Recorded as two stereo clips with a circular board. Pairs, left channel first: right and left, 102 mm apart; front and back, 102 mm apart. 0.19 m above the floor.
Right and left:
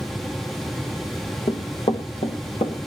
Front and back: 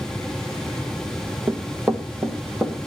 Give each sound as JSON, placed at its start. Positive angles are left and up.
{"t": 1.5, "sound": "running footsteps", "azimuth_deg": -110, "distance_m": 1.3}